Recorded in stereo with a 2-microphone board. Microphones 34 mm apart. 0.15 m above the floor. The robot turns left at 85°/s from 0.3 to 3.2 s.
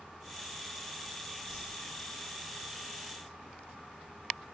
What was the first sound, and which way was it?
A whoosh, 10° right (ahead or behind).